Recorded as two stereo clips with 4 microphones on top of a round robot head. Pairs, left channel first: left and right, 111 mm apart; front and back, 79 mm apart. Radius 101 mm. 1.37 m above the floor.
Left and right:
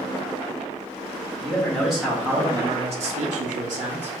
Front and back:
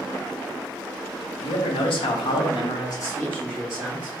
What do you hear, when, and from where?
1.4 s a man speaking: 10° left, 1.0 m; by 4.1 s 105° right, 0.8 m